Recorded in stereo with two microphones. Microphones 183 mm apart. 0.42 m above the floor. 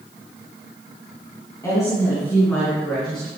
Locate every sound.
1.6 s a woman speaking: 20° left (ahead or behind), 3.5 m; by 3.3 s 5° left (ahead or behind), 5.5 m